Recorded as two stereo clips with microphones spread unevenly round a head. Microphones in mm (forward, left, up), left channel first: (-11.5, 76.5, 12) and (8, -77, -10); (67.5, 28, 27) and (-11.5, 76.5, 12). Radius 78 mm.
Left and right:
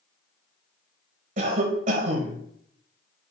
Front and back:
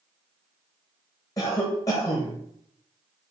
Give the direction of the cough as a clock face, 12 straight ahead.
3 o'clock.